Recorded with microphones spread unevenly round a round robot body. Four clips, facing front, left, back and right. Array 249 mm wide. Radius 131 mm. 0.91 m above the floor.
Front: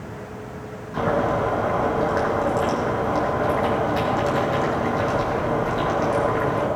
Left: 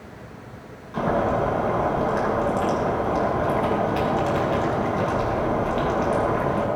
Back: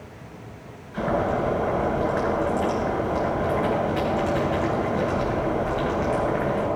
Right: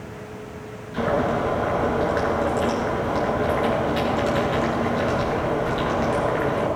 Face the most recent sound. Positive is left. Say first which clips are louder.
# even, front 2 dB
turn(degrees=25)